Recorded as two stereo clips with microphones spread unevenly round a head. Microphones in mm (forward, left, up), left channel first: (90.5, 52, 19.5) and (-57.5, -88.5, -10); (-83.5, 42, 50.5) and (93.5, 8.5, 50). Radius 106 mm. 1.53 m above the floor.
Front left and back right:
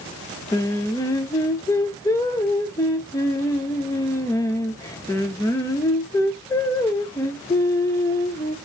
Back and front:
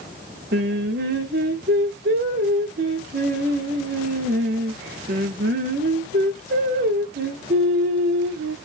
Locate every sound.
0.5 s singing: 15° right, 0.8 m